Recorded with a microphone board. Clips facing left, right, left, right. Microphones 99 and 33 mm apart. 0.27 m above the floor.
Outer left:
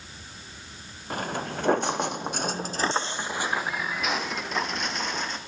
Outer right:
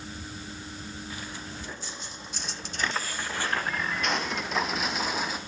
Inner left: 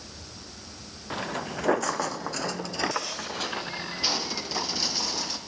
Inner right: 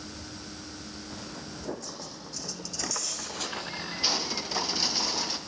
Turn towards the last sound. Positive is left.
turn(degrees=-5)  # may be behind; listen again after turning